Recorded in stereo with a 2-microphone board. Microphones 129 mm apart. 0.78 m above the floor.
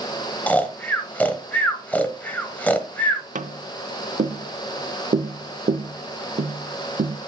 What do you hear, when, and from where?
0.5 s snoring: 10° left (ahead or behind), 1.0 m
3.4 s tapping: 75° right (ahead or behind), 0.7 m